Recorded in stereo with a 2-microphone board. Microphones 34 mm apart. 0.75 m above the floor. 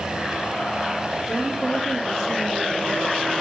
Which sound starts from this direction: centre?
A woman speaking, at 1.3 s.